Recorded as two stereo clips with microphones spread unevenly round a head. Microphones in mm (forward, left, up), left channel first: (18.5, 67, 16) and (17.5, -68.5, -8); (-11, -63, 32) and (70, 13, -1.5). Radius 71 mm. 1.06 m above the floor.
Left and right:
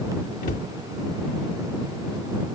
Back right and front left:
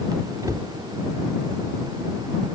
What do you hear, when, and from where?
0.4 s a cupboard door: 120° left